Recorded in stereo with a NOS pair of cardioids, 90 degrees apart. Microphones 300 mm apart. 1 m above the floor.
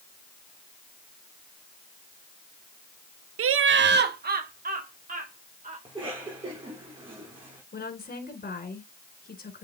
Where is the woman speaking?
30° left, 3.5 m.